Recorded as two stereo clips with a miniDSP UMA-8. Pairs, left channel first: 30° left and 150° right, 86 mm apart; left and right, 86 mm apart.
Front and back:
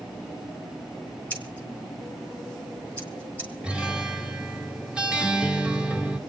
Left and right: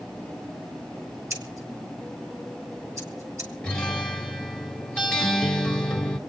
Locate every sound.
1.3 s scissors: 40° right, 3.5 m
3.6 s a guitar: 155° left, 1.4 m